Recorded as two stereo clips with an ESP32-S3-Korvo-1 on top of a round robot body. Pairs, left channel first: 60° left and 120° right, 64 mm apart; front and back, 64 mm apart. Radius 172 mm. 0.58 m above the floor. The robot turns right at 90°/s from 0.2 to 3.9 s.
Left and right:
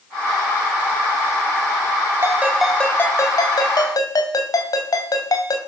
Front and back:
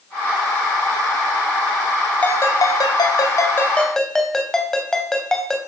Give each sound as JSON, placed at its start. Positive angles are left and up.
{"t": 2.2, "sound": "a ringtone", "azimuth_deg": -70, "distance_m": 2.5}